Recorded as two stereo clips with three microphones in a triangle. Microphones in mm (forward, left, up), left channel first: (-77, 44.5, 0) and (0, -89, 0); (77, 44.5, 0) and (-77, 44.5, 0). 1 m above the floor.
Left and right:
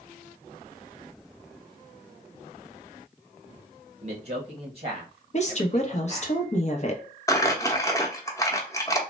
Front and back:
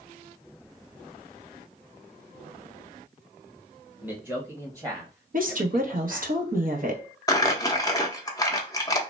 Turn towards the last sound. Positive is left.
turn(degrees=60)